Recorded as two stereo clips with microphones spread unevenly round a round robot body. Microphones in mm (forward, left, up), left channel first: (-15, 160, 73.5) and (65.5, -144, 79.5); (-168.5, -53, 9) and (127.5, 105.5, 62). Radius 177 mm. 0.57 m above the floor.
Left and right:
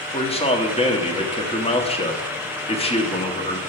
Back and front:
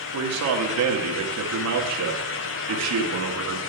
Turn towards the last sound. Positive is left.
turn(degrees=45)